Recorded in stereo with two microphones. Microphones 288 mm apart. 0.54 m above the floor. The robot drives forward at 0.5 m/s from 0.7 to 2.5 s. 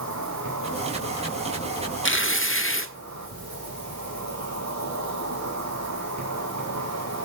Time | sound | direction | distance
0.0 | an insect | 70° right (ahead or behind) | 5.5 m
2.0 | tearing paper | 45° left (ahead or behind) | 1.2 m